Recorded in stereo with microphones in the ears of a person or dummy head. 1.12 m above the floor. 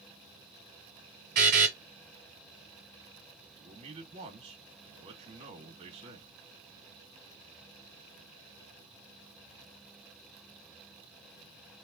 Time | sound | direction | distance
1.4 | a buzzer | 40° right (ahead or behind) | 1.3 m
3.5 | a man speaking | 30° right (ahead or behind) | 1.6 m